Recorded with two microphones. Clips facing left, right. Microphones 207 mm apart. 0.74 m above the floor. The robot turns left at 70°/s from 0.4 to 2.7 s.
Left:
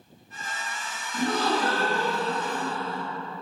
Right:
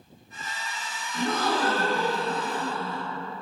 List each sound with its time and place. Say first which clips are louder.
1.1 s a gasp: left 1 dB; 55° left, 1.0 m; by 3.0 s 55° right, 1.0 m